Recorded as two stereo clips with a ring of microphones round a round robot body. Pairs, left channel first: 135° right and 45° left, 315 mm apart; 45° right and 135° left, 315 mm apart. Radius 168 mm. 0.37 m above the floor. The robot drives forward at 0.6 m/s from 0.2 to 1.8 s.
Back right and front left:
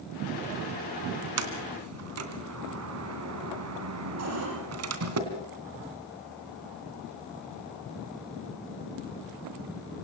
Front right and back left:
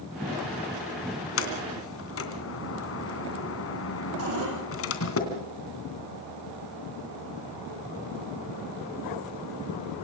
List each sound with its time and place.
1.4 s a sliding door: 5° left, 3 m
4.2 s a cupboard door: 90° left, 8 m